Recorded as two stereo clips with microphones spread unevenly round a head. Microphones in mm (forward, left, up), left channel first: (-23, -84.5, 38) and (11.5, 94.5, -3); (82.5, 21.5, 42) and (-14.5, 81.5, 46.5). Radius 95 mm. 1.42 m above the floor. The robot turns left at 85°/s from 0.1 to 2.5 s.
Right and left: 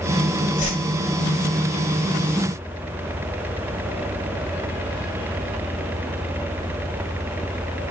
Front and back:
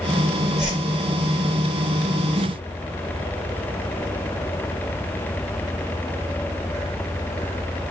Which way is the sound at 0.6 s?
145° right.